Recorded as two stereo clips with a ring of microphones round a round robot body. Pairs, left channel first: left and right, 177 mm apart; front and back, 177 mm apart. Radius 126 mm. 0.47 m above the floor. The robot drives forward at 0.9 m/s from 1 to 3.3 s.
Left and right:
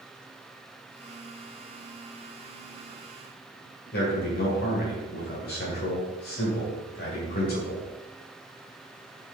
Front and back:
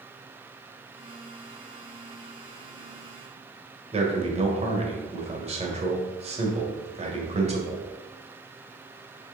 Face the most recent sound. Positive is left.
turn(degrees=130)